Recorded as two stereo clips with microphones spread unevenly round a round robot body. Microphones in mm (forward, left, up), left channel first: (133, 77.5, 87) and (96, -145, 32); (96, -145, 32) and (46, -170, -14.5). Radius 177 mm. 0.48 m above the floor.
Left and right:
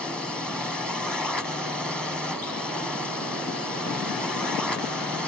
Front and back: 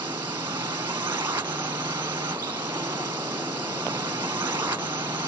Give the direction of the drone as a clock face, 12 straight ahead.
6 o'clock.